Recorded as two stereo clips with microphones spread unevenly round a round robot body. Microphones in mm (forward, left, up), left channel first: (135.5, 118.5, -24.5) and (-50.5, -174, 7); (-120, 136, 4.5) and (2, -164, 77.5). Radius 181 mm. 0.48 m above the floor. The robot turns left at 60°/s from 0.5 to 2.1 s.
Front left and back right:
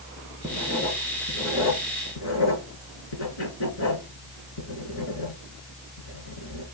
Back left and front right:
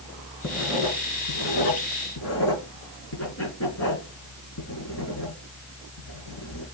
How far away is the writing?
About 4.5 m.